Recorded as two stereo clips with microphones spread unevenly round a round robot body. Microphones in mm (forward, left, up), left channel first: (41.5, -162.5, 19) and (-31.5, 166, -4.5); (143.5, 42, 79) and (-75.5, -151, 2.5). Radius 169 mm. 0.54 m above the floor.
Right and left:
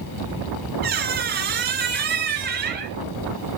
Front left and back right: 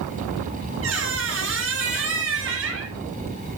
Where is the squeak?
165° left, 1.8 m.